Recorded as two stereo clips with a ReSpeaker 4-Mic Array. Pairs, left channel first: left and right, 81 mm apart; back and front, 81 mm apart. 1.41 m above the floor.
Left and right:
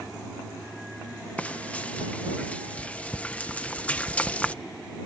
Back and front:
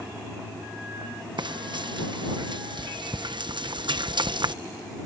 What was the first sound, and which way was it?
Frying, 15° left.